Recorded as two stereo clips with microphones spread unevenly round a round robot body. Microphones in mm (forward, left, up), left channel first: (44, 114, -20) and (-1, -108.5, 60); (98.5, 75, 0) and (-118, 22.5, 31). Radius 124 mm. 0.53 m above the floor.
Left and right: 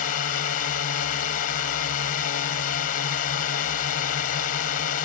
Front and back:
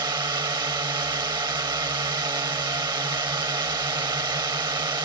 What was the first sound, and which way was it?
A drone, 120° left.